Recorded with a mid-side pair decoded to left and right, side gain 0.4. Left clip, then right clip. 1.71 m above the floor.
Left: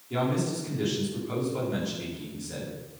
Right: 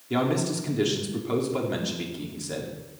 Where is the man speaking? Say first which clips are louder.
Right 3 dB; 60° right, 4.5 m.